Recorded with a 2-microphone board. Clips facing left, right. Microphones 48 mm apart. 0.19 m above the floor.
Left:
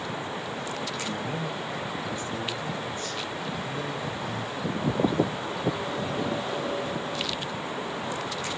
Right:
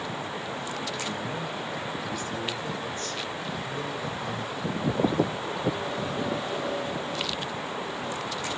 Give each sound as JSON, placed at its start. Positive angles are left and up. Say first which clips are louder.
{"t": 1.1, "sound": "a man speaking", "louder": "left 1 dB", "side_deg": 30, "distance_m": 2.0}